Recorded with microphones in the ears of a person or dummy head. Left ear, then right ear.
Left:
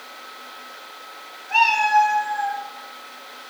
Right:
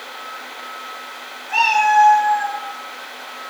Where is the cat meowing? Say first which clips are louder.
Right 2 dB; 15° left (ahead or behind), 2.5 m; by 2.6 s 30° left (ahead or behind), 4 m.